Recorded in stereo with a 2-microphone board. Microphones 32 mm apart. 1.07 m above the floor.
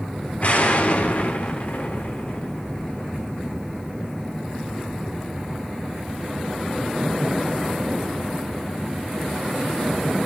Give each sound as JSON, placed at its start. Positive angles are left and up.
{"t": 0.4, "sound": "an explosion", "side_deg": 50, "distance_m": 1.8}